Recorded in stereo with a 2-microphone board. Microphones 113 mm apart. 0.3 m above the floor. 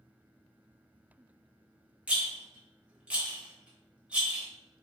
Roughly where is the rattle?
Centre.